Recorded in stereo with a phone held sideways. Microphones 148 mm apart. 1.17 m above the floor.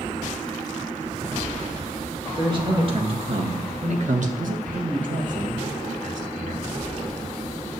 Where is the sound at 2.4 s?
30° right (ahead or behind), 2 m; by 4.3 s 60° right (ahead or behind), 1.6 m.